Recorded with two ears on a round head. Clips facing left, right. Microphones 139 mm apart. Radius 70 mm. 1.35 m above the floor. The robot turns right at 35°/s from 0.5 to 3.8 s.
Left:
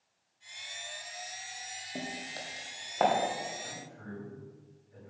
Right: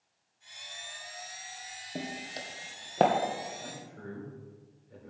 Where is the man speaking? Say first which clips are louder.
Right 2 dB; 70° right (ahead or behind), 4 m; by 5.1 s 75° right (ahead or behind), 4 m.